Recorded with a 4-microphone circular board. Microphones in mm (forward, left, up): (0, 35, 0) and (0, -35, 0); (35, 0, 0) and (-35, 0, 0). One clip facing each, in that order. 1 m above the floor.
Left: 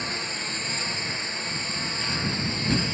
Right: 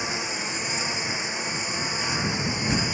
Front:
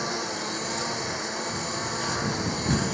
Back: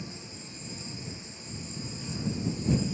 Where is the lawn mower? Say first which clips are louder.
Right 2 dB, front 14 dB; 15° right.